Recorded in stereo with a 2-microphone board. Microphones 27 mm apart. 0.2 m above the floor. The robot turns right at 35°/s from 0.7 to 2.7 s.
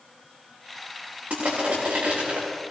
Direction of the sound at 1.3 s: 85° right.